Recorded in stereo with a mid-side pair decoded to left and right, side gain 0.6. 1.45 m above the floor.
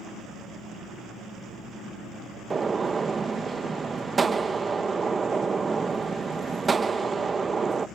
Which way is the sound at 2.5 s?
25° right.